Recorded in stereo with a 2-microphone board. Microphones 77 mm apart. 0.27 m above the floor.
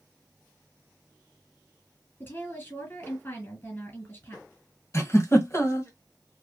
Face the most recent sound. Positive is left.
turn(degrees=40)  # may be behind; listen again after turning